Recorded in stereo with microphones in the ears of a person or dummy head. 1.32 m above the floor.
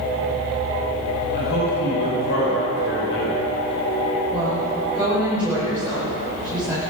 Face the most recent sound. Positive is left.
turn(degrees=-10)  # may be behind; listen again after turning